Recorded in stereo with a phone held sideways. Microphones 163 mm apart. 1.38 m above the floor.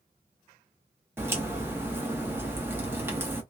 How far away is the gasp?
I don't hear a gasp.